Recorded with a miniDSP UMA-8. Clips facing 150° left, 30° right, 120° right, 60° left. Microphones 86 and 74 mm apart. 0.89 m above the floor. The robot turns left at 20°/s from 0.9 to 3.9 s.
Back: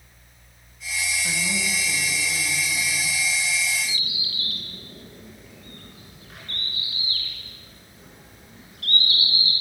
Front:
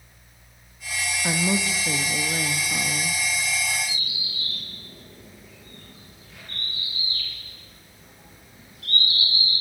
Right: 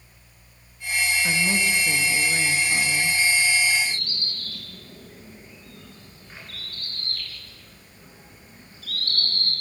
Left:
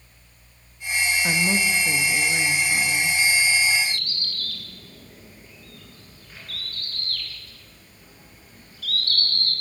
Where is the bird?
Straight behind, 8.5 m; by 9.5 s 175° left, 8.5 m.